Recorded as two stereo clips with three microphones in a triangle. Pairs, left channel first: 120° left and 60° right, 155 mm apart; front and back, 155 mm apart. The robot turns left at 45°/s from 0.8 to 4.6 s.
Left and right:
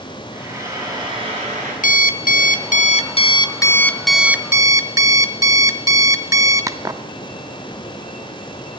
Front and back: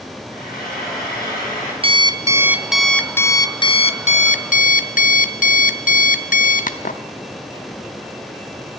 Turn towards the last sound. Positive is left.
turn(degrees=10)